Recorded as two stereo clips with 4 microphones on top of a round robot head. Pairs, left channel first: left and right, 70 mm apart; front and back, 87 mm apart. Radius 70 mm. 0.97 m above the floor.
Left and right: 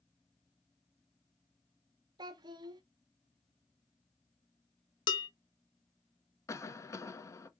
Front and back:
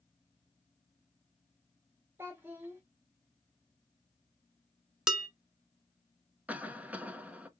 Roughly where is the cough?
Left.